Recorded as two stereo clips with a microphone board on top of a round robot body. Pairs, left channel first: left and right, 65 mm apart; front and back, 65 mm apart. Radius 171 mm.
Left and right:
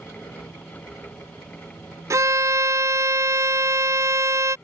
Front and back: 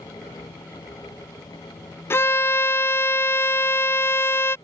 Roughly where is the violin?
Ahead right.